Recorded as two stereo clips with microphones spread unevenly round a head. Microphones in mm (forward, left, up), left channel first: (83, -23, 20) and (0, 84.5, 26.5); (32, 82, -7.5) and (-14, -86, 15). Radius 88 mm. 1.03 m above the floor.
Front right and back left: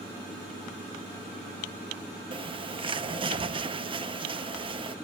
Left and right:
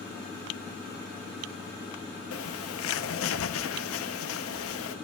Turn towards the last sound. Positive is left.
turn(degrees=75)